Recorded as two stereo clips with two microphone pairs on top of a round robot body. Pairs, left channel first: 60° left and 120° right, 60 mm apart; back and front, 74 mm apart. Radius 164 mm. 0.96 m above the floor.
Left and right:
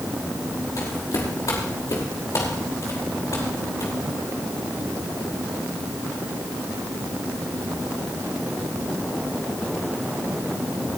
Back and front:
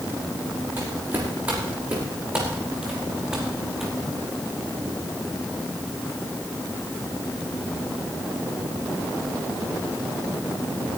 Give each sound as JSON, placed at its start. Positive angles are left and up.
{"t": 0.8, "sound": "footsteps", "azimuth_deg": 60, "distance_m": 5.5}